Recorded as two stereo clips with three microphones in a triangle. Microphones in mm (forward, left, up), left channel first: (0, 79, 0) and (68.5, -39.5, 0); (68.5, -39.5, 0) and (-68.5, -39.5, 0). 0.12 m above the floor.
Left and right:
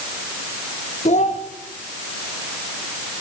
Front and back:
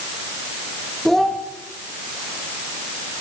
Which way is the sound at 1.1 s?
85° left.